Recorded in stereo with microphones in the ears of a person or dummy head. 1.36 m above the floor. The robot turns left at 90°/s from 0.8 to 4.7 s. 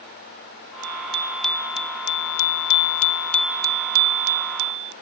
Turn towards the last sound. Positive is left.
turn(degrees=-115)